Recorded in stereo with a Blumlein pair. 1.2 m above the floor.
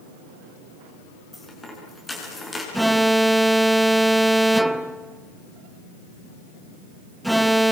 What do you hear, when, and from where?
1.3 s a dropped coin: 5° left, 7 m
2.7 s an alarm: 5° right, 0.9 m